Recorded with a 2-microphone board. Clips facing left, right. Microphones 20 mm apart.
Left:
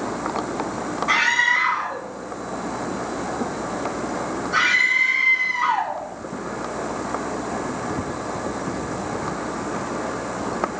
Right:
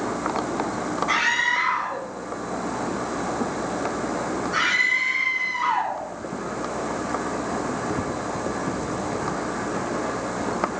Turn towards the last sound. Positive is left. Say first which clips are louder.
# left 4 dB
turn(degrees=15)  # may be behind; listen again after turning